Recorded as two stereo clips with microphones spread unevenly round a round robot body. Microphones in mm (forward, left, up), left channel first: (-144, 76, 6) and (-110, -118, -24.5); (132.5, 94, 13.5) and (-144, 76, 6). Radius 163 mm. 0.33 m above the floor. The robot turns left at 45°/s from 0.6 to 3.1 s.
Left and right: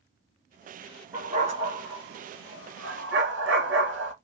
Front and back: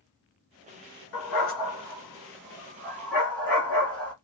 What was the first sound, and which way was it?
A dog barking, 5° left.